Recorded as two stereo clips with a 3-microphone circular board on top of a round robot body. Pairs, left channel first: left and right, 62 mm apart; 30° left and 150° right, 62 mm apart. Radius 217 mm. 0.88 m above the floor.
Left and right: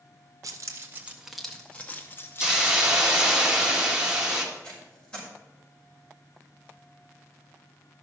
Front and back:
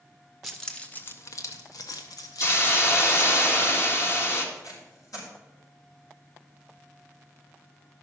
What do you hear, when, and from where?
0.4 s keys jangling: 60° right, 0.7 m; by 3.4 s 50° left, 1.7 m
2.4 s a hiss: 15° right, 2 m
4.5 s tape being pulled: 20° left, 5.5 m